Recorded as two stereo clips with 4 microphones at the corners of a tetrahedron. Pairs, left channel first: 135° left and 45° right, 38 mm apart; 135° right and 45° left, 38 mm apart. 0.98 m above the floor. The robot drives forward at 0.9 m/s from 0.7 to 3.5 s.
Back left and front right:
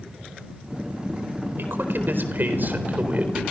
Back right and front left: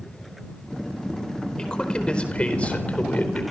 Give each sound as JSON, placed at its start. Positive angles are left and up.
{"t": 1.6, "sound": "a man speaking", "azimuth_deg": -65, "distance_m": 4.5}